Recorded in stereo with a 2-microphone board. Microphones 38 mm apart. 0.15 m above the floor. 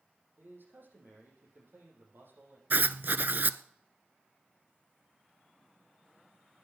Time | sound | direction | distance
0.4 | a man speaking | 60° right (ahead or behind) | 6.5 m
2.7 | writing | 55° right (ahead or behind) | 0.6 m